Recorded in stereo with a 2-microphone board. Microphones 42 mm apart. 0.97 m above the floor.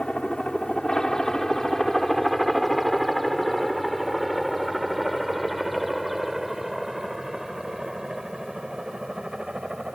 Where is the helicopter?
20° left (ahead or behind); by 10.0 s 20° right (ahead or behind).